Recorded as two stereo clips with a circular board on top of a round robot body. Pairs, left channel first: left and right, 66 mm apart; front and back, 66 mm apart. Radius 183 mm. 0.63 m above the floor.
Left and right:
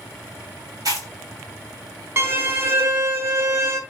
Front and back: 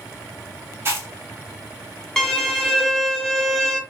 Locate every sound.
0.8 s chewing: 120° right, 1.3 m
2.2 s a violin: 75° right, 0.8 m